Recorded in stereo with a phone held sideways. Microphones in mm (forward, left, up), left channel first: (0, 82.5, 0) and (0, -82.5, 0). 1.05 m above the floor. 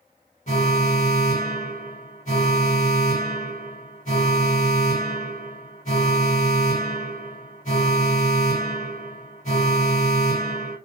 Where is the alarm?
45° left (ahead or behind), 1.1 m.